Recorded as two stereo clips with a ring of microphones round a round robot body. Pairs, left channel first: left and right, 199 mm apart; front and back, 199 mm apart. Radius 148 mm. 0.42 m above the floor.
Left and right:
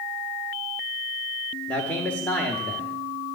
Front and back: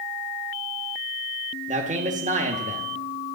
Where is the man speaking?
170° left, 1.2 m.